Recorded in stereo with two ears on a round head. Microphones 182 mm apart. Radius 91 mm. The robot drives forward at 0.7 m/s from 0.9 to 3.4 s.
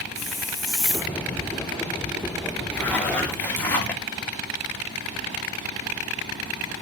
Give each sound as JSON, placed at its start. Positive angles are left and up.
{"t": 0.1, "sound": "a hiss", "side_deg": 0, "distance_m": 2.5}
{"t": 2.7, "sound": "a zipper", "side_deg": 10, "distance_m": 3.0}